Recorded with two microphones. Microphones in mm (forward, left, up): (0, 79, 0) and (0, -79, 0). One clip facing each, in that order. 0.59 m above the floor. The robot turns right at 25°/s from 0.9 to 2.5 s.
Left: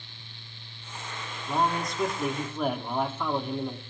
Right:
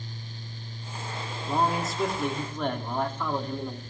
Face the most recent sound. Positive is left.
turn(degrees=10)  # may be behind; listen again after turning